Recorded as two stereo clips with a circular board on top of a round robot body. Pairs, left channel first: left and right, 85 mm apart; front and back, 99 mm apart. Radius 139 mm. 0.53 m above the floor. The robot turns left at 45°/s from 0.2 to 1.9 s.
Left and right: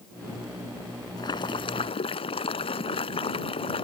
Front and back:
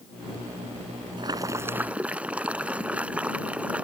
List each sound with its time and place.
1.2 s boiling: 135° left; by 3.9 s 100° left